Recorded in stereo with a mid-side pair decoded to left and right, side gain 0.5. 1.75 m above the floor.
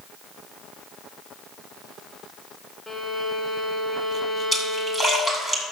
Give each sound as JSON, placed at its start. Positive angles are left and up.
{"t": 2.9, "sound": "a violin", "azimuth_deg": 5, "distance_m": 2.0}
{"t": 4.5, "sound": "a splash", "azimuth_deg": 5, "distance_m": 7.5}